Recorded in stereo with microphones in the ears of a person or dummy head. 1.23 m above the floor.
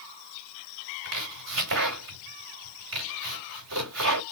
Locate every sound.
1.1 s chopping: 80° right, 2.5 m